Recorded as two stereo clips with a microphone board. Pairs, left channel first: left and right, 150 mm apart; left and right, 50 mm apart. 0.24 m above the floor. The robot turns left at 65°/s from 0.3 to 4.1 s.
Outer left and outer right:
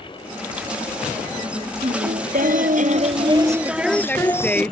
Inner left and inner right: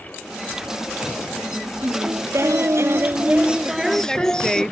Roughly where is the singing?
Ahead right.